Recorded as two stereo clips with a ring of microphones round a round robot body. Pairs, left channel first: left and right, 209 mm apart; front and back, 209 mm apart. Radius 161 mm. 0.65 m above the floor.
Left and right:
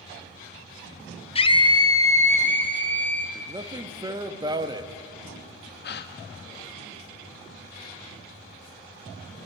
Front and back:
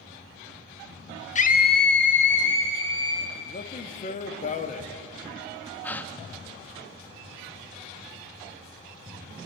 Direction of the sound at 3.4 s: 30° right.